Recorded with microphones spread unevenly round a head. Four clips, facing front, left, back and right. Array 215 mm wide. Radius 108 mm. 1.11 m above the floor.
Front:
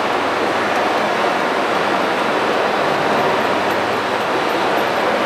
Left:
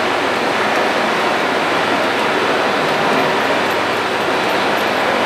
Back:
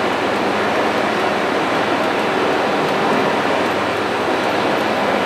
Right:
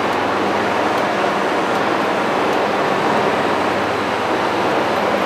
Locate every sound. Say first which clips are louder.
0.0 s running water: left 1 dB, even; 135° left, 2 m